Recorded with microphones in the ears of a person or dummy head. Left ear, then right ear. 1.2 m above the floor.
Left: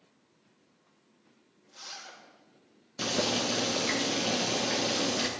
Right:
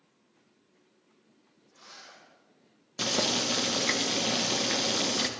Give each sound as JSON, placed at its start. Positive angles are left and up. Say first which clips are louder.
{"t": 1.7, "sound": "a zipper", "louder": "left 6 dB", "side_deg": 45, "distance_m": 4.0}
{"t": 3.0, "sound": "boiling", "louder": "right 2 dB", "side_deg": -15, "distance_m": 1.1}